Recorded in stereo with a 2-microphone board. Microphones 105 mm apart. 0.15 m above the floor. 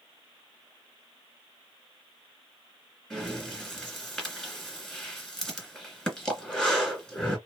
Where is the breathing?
5° left (ahead or behind), 2.0 m.